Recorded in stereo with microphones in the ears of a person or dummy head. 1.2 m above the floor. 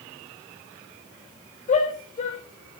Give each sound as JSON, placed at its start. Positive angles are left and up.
{"t": 1.7, "sound": "a shout", "side_deg": 30, "distance_m": 7.0}